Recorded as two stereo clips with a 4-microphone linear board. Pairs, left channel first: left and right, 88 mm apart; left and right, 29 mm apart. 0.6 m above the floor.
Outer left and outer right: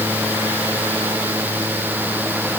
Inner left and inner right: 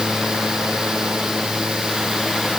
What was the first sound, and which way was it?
Only background noise.